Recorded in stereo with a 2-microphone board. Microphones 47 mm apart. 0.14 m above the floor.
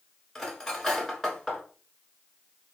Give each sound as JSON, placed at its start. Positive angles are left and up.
{"t": 0.3, "sound": "cutlery clinking", "side_deg": 5, "distance_m": 1.1}